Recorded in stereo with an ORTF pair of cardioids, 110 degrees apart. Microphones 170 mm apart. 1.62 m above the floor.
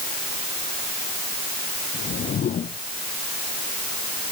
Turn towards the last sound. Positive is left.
turn(degrees=50)